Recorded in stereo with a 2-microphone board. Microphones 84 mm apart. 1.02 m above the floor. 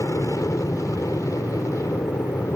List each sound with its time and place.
0.0 s an aircraft: 40° left (ahead or behind)